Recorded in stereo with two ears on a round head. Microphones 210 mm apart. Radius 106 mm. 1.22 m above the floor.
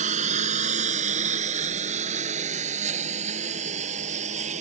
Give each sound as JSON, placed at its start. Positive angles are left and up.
{"t": 0.0, "sound": "a lawn mower", "side_deg": -30}